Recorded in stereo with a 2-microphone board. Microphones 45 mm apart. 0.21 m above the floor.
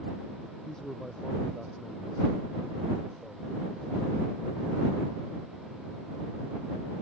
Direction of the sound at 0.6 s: 15° left (ahead or behind).